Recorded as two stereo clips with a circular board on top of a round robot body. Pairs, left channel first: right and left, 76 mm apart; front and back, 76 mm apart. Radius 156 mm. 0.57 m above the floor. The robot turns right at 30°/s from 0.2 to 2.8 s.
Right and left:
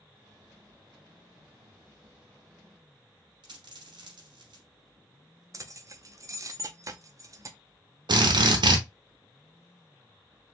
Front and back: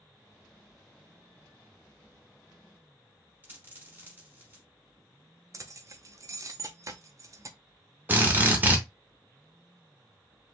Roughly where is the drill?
Behind left.